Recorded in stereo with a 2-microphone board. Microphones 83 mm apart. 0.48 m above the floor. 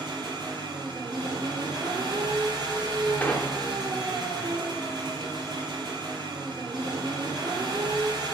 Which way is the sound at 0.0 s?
60° right (ahead or behind).